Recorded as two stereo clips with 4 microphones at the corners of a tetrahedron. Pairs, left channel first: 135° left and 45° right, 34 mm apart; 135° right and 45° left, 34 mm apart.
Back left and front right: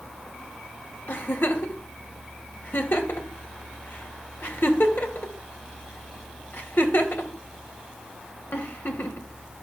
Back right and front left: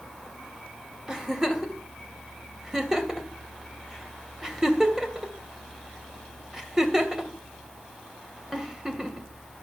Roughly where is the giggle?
Behind left.